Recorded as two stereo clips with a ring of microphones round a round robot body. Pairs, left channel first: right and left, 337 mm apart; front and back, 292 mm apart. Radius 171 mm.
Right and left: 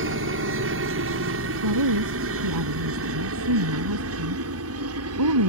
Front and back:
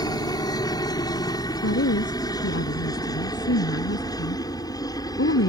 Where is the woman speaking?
50° left.